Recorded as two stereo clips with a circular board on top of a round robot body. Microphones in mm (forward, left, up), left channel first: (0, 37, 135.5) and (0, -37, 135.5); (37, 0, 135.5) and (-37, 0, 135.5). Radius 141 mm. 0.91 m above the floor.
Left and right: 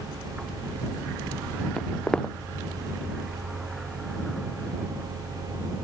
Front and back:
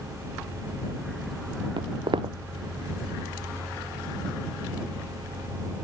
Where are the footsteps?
170° left.